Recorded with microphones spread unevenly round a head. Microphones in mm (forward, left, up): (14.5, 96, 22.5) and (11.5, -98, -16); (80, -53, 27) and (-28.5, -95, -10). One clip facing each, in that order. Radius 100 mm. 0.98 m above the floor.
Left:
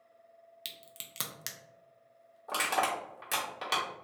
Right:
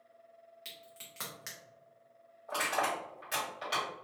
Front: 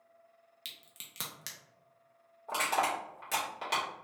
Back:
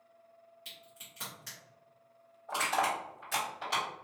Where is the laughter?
No laughter in this recording.